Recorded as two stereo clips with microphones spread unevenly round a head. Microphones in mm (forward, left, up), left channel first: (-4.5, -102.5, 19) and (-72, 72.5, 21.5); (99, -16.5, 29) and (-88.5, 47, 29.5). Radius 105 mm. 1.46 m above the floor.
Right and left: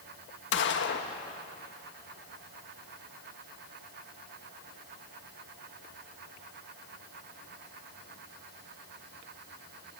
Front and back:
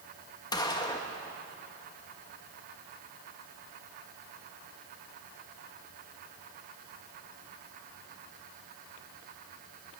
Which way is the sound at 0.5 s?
90° right.